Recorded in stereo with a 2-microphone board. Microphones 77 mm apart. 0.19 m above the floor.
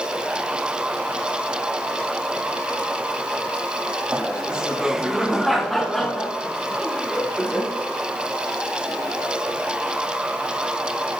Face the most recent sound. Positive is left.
turn(degrees=10)  # may be behind; listen again after turning